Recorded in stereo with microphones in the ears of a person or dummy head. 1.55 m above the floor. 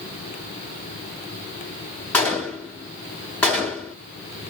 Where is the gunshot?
10° left (ahead or behind), 1.6 m.